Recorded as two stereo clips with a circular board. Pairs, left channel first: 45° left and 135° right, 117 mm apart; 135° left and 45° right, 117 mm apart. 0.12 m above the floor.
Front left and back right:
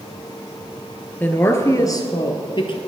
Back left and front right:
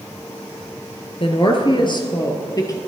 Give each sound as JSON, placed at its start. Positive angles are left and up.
{"t": 1.2, "sound": "a woman speaking", "azimuth_deg": 115, "distance_m": 1.7}